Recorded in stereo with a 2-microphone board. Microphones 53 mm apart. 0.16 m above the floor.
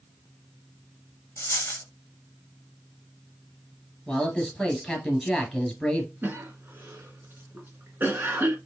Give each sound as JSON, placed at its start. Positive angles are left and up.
{"t": 1.4, "sound": "a dropped coin", "side_deg": 55, "distance_m": 0.7}
{"t": 4.1, "sound": "a man speaking", "side_deg": 5, "distance_m": 2.5}
{"t": 6.2, "sound": "a cough", "side_deg": -40, "distance_m": 1.5}